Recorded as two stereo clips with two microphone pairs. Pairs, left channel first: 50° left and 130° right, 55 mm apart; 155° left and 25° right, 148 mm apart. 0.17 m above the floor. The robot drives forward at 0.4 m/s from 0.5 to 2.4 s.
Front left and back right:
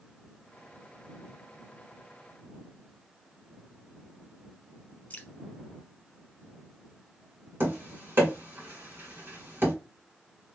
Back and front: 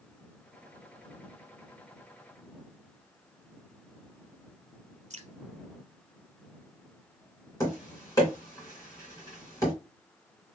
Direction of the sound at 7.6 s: 150° right.